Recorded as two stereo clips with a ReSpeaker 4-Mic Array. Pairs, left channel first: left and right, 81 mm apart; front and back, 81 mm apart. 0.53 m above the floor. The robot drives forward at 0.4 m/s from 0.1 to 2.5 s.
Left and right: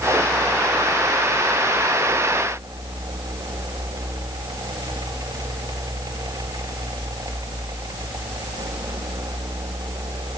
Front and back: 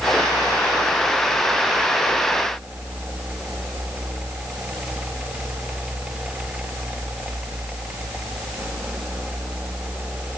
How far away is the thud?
I don't hear a thud.